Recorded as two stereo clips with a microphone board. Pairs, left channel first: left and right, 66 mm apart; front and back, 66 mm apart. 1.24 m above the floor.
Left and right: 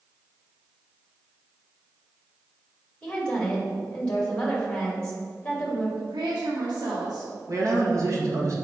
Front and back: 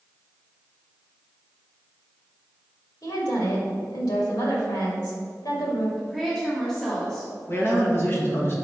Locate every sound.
3.0 s a woman speaking: 10° left, 2 m
6.0 s a woman speaking: 80° right, 1.4 m
7.5 s a man speaking: 55° right, 1.6 m